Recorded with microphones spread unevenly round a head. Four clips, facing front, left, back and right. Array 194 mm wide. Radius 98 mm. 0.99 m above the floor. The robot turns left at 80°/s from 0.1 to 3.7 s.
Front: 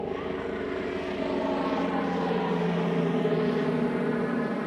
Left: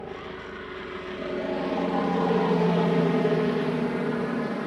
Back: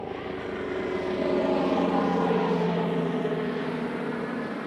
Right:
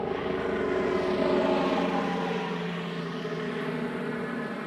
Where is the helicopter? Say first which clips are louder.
Right 8 dB, front 2 dB; 45° right; by 4.7 s 25° left.